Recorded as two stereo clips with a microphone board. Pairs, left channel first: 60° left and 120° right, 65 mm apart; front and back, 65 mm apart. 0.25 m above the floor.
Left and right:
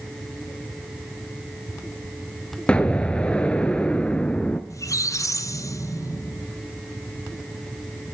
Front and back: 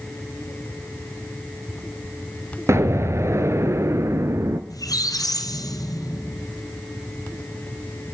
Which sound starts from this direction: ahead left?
A squeak, at 4.7 s.